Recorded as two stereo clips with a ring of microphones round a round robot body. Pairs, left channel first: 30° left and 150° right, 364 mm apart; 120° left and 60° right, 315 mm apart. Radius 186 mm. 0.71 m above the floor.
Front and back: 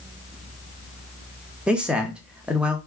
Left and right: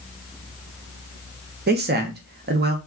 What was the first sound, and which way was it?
A man speaking, 65° right.